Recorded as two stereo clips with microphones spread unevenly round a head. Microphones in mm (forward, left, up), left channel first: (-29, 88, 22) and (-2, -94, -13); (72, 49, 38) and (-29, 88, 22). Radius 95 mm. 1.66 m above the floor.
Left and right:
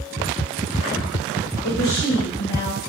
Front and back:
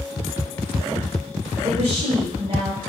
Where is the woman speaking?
125° left, 1.5 m.